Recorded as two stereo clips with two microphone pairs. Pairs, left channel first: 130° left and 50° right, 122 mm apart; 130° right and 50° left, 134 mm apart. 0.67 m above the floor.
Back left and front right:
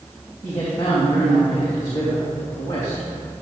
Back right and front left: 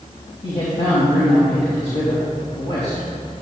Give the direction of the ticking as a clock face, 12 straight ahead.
I don't hear ticking.